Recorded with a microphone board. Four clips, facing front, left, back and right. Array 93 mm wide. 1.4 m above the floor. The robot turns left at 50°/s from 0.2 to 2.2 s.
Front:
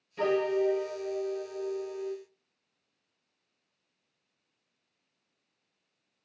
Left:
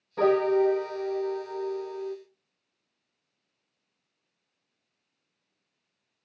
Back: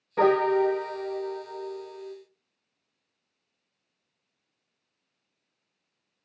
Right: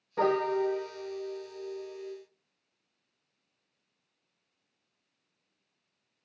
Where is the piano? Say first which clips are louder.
Left 5 dB, back 6 dB; 175° right, 1.5 m; by 2.2 s 90° left, 1.5 m.